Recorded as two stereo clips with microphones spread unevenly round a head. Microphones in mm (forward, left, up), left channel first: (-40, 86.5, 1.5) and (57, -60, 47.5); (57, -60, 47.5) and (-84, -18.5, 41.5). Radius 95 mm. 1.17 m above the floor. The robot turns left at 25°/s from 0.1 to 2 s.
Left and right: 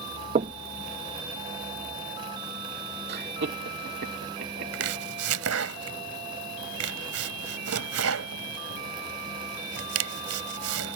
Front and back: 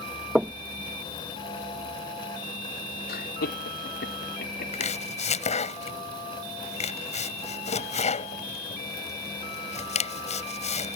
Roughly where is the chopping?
Ahead right.